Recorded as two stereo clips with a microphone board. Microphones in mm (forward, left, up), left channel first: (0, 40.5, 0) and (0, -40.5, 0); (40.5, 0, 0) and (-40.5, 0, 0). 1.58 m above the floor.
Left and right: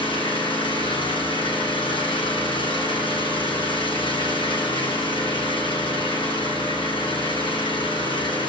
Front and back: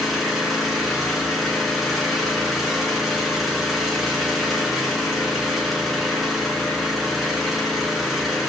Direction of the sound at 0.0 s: 90° left.